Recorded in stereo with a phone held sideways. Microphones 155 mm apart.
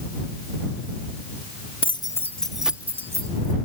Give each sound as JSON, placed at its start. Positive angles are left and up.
{"t": 1.8, "sound": "keys jangling", "side_deg": 35}